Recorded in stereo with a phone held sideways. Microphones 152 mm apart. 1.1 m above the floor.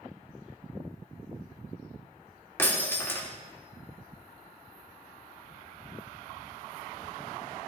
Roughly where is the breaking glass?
Centre.